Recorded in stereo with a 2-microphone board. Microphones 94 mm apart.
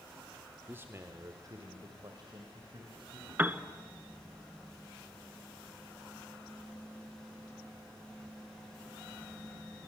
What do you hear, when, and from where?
0.7 s a man speaking: 20° right (ahead or behind), 1.3 m; by 3.3 s 55° right (ahead or behind), 4 m
3.4 s a piano: 20° right (ahead or behind), 0.9 m